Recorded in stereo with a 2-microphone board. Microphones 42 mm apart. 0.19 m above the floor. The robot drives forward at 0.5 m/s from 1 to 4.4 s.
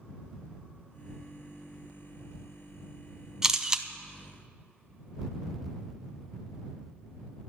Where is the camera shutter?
10° right (ahead or behind), 0.7 m; by 3.9 s 15° right (ahead or behind), 0.6 m.